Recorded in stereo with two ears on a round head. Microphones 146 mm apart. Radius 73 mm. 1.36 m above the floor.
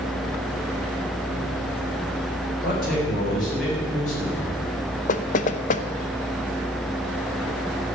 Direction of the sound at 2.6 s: 55° left (ahead or behind).